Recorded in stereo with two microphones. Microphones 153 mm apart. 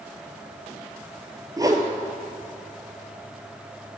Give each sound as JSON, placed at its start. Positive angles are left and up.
{"t": 1.6, "sound": "a whoosh", "side_deg": -25, "distance_m": 0.9}